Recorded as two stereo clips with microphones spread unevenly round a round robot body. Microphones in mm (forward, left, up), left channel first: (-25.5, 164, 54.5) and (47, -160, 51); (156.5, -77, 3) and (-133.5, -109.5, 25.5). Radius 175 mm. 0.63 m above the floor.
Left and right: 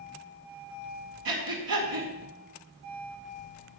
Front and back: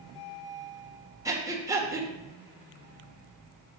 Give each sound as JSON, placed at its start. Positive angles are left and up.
{"t": 1.2, "sound": "breathing", "azimuth_deg": -95, "distance_m": 2.0}